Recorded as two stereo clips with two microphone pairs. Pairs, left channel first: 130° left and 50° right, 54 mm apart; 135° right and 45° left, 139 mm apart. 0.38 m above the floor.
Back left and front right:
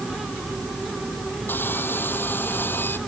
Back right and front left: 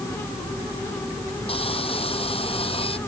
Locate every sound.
1.5 s sawing: straight behind